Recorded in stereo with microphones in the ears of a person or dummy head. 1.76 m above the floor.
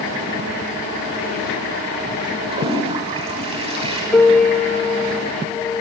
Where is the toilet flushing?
25° right (ahead or behind), 6.5 m.